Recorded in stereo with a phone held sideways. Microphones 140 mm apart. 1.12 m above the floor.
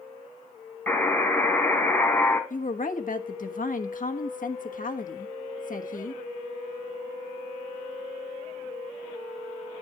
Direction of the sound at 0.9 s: 10° left (ahead or behind).